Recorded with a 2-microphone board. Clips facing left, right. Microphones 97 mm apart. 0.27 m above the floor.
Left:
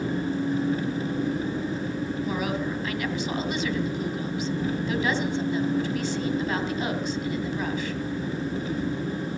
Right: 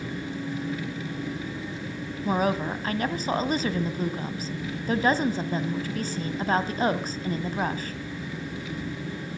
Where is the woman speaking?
40° right (ahead or behind), 1.6 m.